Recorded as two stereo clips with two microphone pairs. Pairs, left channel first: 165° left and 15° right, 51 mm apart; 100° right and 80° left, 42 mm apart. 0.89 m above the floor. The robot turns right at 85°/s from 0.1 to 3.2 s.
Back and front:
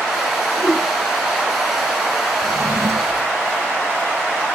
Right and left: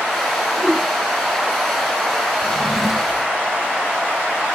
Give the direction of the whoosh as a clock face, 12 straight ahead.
7 o'clock.